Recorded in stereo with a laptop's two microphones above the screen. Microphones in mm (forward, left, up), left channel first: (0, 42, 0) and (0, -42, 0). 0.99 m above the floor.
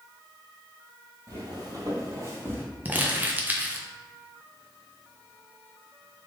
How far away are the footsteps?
About 1.5 m.